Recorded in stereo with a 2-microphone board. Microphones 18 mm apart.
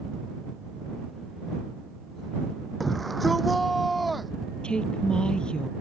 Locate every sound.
2.8 s a shout: 5° left (ahead or behind); by 4.3 s centre (ahead or behind)
4.6 s a woman speaking: 65° left (ahead or behind)